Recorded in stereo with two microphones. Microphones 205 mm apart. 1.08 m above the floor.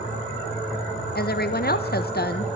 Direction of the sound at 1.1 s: 50° left (ahead or behind).